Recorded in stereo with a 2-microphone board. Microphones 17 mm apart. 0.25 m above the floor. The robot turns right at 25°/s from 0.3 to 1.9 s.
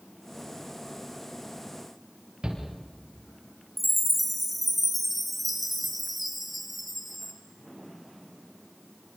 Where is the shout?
70° right (ahead or behind), 6 m.